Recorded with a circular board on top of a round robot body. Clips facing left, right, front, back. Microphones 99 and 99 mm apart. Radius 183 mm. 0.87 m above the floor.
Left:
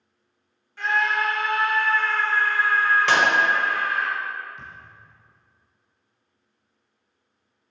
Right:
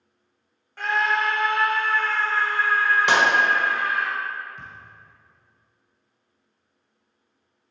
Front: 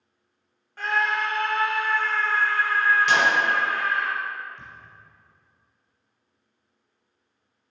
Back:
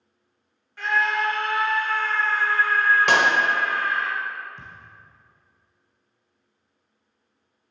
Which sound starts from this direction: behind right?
A thud, at 4.6 s.